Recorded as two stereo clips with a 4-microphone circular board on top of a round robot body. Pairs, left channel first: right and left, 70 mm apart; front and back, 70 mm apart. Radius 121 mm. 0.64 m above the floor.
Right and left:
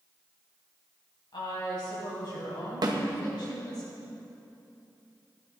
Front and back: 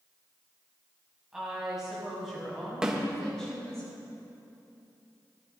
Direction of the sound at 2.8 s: 105° left.